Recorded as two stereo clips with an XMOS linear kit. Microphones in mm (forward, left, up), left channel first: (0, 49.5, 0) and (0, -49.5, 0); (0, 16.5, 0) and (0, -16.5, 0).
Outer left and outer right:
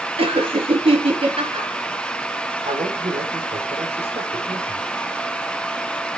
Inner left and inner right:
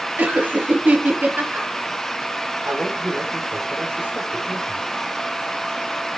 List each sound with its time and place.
0.2 s laughter: 65° right (ahead or behind), 5 m
2.6 s a man speaking: 75° right (ahead or behind), 5 m